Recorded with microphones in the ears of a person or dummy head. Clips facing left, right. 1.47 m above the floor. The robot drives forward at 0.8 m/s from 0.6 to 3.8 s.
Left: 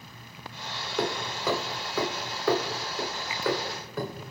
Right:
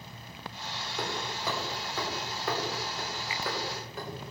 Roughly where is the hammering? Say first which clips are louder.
Left 6 dB; left.